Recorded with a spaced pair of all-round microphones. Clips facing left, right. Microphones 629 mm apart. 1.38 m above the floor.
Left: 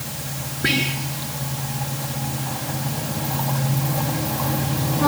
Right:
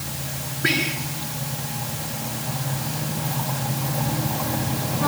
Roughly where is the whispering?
Left.